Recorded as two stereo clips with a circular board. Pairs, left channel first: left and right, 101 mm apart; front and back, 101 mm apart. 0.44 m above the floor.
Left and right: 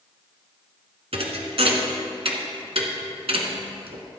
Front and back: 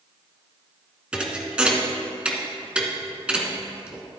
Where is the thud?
100° right, 1.2 m.